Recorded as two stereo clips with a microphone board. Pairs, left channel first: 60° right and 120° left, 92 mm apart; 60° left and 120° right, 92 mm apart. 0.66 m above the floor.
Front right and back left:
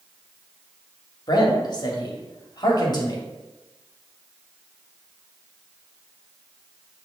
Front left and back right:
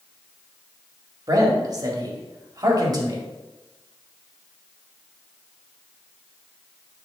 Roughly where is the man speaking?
Right.